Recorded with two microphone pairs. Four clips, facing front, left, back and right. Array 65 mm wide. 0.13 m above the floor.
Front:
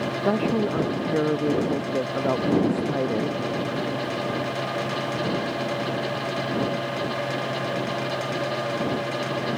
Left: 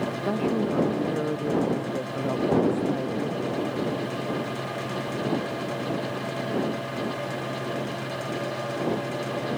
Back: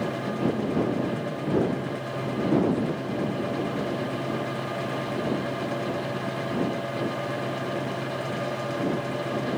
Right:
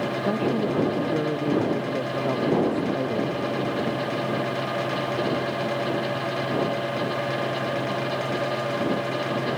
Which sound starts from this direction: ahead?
A woman speaking, at 0.2 s.